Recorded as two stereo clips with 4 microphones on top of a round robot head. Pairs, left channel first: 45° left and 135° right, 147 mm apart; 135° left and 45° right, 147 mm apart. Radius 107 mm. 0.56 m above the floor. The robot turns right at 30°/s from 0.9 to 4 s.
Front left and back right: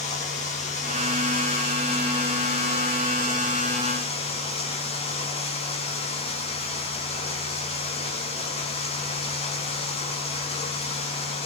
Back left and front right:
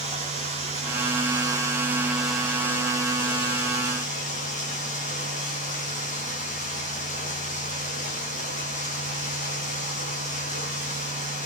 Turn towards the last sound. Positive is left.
turn(degrees=95)